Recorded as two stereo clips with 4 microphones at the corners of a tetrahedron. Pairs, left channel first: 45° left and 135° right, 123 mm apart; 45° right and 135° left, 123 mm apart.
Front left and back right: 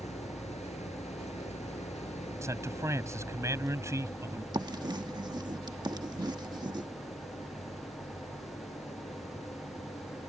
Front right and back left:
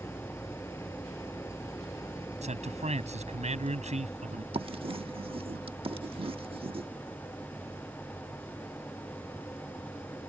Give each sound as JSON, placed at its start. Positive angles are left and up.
{"t": 0.0, "sound": "an engine running", "azimuth_deg": 20}
{"t": 2.4, "sound": "a man speaking", "azimuth_deg": 160}
{"t": 4.5, "sound": "writing", "azimuth_deg": 170}